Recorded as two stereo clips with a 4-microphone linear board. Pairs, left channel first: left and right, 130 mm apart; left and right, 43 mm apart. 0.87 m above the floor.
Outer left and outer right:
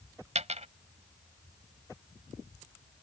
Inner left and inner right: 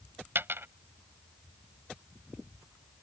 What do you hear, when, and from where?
0.3 s a dropped coin: 60° right (ahead or behind)